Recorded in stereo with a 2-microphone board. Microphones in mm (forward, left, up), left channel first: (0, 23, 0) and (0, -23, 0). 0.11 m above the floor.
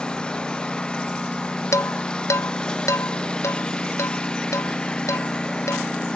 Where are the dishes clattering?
80° left.